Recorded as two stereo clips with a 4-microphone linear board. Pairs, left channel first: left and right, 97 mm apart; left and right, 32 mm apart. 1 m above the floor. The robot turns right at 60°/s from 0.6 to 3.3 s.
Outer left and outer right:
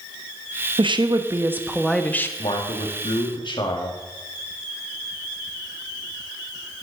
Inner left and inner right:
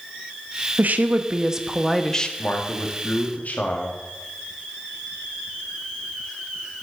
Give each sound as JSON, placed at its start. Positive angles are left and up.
{"t": 0.8, "sound": "a woman speaking", "azimuth_deg": -65, "distance_m": 1.1}
{"t": 2.4, "sound": "a man speaking", "azimuth_deg": 70, "distance_m": 2.5}